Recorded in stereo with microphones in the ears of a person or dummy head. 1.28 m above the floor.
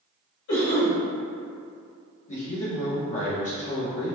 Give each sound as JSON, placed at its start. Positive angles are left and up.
{"t": 0.5, "sound": "a cough", "side_deg": 70, "distance_m": 1.5}
{"t": 2.3, "sound": "a man speaking", "side_deg": 35, "distance_m": 1.2}